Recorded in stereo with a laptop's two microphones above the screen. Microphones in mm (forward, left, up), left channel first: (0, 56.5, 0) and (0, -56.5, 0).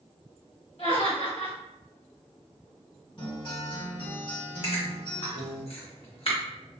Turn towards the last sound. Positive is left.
turn(degrees=60)  # may be behind; listen again after turning